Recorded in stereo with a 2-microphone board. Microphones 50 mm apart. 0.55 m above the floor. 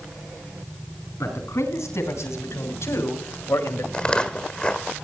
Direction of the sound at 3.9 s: 20° left (ahead or behind).